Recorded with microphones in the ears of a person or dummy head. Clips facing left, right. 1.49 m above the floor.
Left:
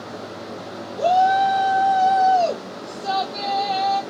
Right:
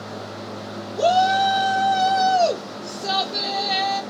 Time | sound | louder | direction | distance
1.0 | a shout | left 1 dB | 35° right (ahead or behind) | 0.6 m